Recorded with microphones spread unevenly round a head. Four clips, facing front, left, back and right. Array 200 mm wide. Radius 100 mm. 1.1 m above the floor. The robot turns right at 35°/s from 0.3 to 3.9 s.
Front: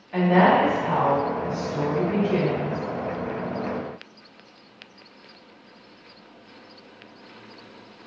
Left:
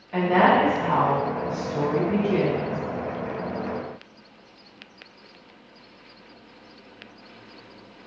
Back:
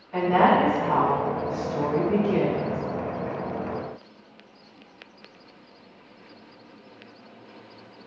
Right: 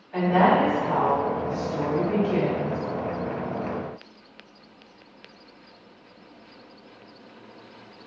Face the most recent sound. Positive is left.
turn(degrees=-165)